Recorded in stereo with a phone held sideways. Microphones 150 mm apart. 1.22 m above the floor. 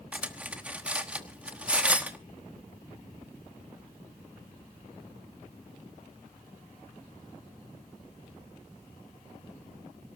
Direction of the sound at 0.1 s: 10° right (ahead or behind).